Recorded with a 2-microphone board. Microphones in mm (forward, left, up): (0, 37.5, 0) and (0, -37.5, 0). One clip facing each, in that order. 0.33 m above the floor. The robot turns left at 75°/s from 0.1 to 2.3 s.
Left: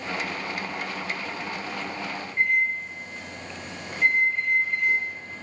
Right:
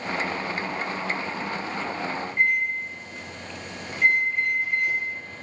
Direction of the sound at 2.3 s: 5° right (ahead or behind).